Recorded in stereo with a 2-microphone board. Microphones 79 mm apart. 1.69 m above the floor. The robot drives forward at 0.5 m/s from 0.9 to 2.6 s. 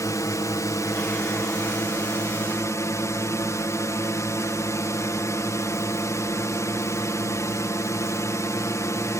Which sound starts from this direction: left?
A drone, at 0.0 s.